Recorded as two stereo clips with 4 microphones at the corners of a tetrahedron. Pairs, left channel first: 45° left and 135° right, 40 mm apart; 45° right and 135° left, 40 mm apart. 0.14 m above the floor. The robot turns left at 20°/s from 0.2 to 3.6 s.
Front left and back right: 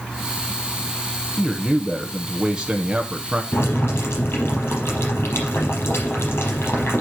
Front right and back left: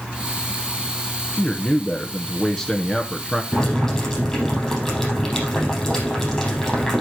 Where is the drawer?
No drawer in this recording.